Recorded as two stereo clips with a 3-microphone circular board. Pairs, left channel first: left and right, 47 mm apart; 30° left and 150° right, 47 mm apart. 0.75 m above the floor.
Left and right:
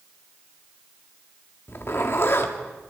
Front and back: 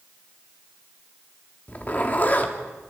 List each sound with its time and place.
1.7 s a zipper: 75° left, 2.0 m